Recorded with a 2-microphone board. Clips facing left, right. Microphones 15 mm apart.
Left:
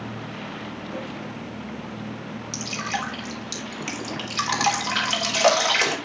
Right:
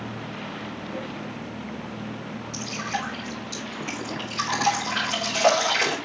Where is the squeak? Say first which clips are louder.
Even; 55° left (ahead or behind), 6 m.